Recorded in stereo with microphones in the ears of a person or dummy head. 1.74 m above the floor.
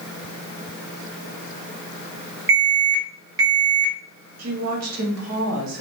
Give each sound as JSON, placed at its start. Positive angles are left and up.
{"t": 2.5, "sound": "an alarm", "side_deg": -15, "distance_m": 1.2}
{"t": 4.4, "sound": "a woman speaking", "side_deg": -85, "distance_m": 1.0}